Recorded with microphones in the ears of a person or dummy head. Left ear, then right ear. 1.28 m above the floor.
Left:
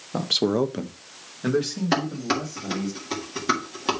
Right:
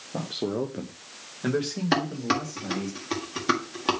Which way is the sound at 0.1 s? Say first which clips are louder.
Left 8 dB; 55° left (ahead or behind).